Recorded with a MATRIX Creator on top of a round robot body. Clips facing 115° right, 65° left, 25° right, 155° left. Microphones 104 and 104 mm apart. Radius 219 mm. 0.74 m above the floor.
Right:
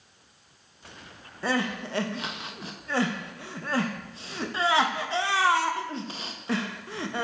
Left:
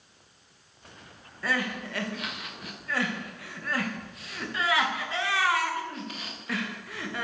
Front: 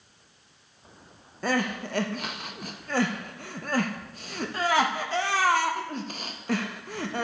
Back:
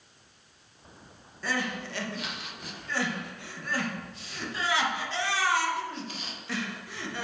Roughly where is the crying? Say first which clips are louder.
Right 3 dB, front 5 dB; ahead right.